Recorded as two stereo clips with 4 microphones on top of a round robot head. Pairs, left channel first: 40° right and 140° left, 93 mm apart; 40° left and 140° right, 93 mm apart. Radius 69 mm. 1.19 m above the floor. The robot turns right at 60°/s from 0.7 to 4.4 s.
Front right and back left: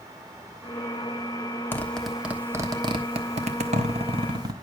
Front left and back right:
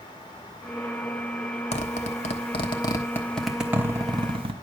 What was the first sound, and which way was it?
A zipper, 25° left.